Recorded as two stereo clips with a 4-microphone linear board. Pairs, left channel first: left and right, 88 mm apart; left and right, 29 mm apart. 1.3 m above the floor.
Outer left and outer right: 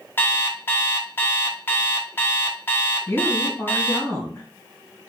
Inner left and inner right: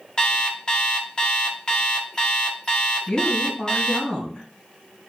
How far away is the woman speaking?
About 1.4 m.